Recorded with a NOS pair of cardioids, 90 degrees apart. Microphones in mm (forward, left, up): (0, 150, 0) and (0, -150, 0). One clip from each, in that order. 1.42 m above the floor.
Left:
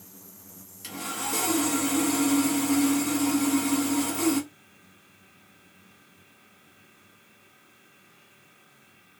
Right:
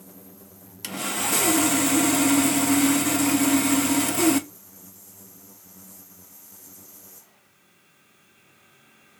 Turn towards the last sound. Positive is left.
turn(degrees=-45)